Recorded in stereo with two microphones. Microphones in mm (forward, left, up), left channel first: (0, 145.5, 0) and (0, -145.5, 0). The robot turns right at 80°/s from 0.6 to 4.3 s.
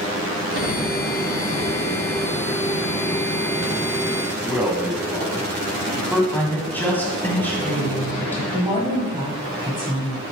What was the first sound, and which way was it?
A man speaking, 5° right (ahead or behind).